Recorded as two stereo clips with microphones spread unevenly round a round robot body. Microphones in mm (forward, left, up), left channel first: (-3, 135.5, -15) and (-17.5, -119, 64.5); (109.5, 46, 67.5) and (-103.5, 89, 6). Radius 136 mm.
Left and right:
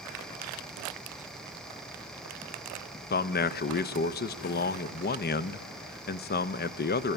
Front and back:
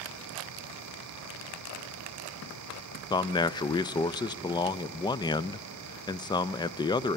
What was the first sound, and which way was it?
A man speaking, 70° left.